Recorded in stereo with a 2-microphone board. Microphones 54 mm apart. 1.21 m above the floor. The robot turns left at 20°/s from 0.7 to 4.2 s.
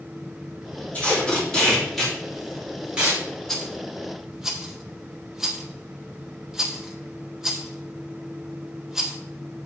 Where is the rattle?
5° left (ahead or behind), 1.2 m; by 9.2 s 5° right (ahead or behind), 1.2 m.